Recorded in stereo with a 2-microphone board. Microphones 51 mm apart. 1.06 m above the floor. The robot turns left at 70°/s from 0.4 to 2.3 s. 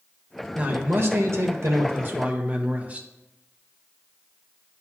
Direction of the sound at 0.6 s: 25° right.